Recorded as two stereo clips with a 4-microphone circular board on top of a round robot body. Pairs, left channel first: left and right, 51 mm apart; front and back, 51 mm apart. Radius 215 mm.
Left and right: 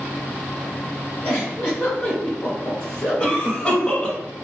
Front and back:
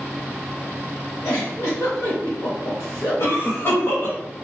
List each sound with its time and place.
1.2 s a giggle: 40° left, 0.7 m
3.2 s a cough: 25° left, 2.0 m